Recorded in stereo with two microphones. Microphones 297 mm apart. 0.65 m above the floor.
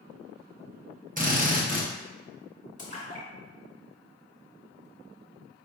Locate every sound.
1.2 s a drill: 30° right (ahead or behind), 0.7 m
2.8 s a splash: 25° left (ahead or behind), 1.2 m